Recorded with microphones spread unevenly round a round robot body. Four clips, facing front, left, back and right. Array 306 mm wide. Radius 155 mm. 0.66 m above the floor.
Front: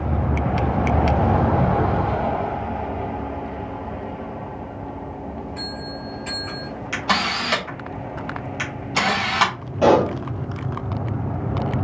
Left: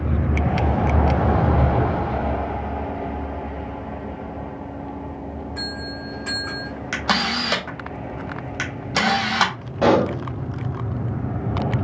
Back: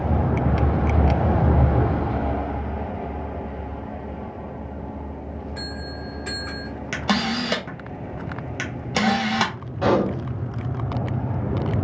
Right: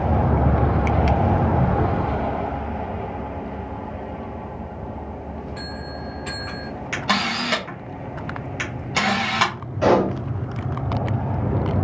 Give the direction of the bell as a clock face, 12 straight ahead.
7 o'clock.